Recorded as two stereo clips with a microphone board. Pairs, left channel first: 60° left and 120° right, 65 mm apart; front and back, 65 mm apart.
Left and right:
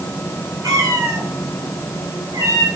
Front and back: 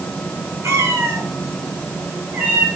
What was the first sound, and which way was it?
A cat meowing, 140° right.